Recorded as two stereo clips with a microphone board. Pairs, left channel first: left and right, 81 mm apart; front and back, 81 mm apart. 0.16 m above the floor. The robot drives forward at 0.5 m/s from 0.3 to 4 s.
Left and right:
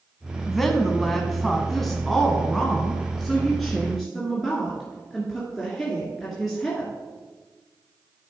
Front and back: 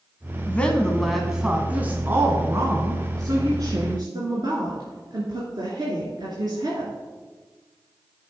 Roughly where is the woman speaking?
Ahead.